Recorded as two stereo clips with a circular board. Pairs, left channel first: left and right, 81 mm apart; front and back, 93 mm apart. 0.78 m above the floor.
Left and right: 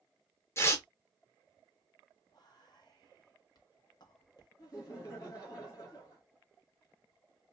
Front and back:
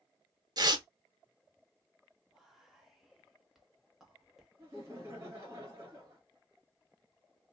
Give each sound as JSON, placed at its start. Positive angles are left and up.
{"t": 0.6, "sound": "tearing paper", "azimuth_deg": 140, "distance_m": 0.6}
{"t": 2.3, "sound": "whispering", "azimuth_deg": 95, "distance_m": 1.0}
{"t": 4.6, "sound": "laughter", "azimuth_deg": 125, "distance_m": 1.4}